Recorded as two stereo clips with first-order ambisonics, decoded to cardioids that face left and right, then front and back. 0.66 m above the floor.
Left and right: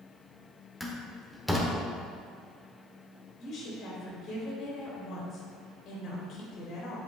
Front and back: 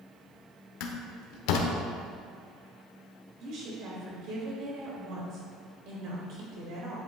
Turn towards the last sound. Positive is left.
turn(degrees=140)